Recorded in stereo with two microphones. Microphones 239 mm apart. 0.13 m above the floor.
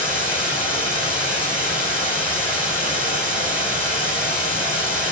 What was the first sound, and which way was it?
Running water, 5° right (ahead or behind).